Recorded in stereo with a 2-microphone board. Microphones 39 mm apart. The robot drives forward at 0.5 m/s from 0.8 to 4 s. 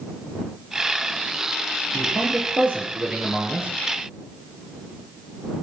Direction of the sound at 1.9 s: 35° right (ahead or behind).